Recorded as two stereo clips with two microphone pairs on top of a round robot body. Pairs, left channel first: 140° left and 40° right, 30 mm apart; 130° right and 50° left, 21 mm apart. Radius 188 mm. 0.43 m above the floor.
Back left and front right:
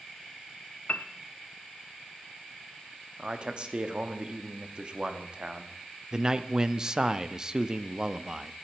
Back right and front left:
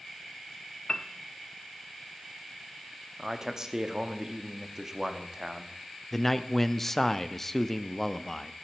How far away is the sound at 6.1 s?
About 0.8 m.